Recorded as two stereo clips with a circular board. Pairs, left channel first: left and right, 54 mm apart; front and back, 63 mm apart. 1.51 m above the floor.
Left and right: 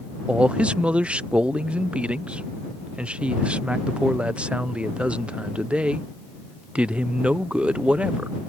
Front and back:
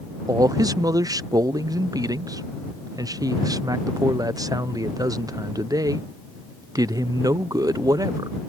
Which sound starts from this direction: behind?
A man speaking, at 0.3 s.